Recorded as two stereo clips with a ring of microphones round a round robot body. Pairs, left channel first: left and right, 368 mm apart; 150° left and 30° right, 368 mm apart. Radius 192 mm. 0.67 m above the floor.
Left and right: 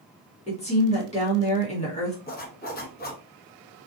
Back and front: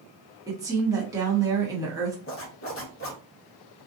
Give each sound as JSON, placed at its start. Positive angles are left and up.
{"t": 0.5, "sound": "a woman speaking", "azimuth_deg": 40, "distance_m": 1.2}
{"t": 2.3, "sound": "a zipper", "azimuth_deg": 135, "distance_m": 1.0}